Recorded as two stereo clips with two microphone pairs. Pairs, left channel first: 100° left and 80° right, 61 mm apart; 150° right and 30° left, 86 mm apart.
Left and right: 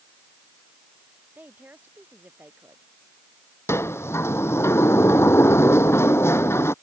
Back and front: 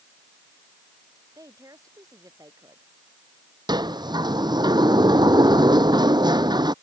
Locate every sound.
1.4 s a woman speaking: 20° right
3.7 s a sliding door: 60° left